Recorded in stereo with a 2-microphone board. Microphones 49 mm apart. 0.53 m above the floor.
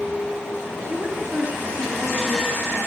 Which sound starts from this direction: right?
A woman speaking, at 0.9 s.